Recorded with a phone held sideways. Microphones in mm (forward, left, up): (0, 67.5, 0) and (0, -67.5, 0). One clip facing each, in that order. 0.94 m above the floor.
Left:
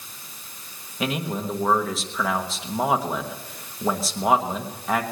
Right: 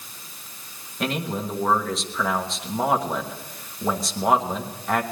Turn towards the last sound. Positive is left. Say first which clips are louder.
# even
turn(degrees=0)  # may be behind; listen again after turning